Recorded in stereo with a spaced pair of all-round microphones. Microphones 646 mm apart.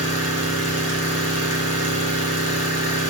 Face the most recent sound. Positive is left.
turn(degrees=-20)  # may be behind; listen again after turning